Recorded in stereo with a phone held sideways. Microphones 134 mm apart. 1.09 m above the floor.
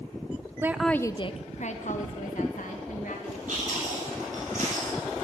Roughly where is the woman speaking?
Centre.